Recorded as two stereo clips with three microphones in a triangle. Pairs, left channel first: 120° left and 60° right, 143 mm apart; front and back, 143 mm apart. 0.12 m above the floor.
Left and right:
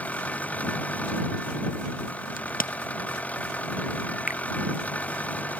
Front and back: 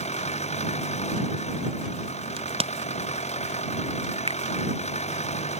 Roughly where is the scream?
No scream in this recording.